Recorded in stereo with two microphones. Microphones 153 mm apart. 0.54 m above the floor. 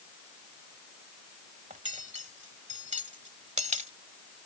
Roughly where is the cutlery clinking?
Right.